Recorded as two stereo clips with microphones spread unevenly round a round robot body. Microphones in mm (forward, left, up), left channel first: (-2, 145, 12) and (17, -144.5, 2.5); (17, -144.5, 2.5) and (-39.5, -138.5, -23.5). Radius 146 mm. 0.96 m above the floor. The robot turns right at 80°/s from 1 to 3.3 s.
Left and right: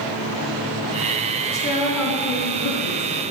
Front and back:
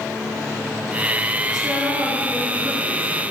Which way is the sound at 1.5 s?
20° left.